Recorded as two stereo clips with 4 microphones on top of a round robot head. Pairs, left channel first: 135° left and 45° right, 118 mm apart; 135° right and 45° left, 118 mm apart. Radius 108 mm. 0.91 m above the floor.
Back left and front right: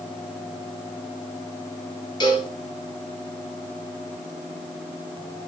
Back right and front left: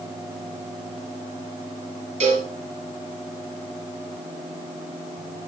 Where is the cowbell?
80° left, 2.5 m.